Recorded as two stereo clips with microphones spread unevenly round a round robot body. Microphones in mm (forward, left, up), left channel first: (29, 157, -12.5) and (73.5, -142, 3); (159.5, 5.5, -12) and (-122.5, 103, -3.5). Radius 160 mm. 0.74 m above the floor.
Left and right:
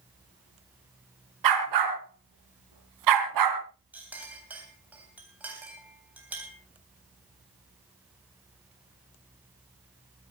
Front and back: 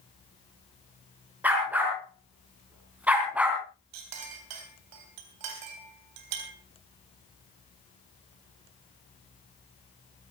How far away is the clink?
About 3.5 m.